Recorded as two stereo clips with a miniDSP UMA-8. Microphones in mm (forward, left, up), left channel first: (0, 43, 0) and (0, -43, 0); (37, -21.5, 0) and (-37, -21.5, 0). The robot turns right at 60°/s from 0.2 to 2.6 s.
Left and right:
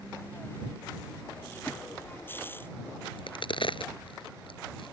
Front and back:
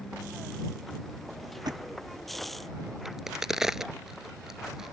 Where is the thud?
155° left; by 1.8 s 165° left.